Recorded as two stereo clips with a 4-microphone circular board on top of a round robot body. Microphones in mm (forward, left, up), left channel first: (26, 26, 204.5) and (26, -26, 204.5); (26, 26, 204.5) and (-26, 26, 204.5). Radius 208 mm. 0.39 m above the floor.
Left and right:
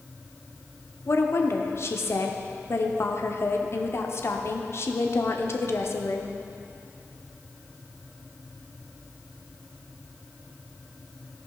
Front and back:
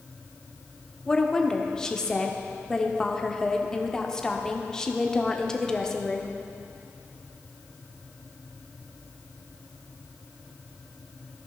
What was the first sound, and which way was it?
A woman speaking, 75° left.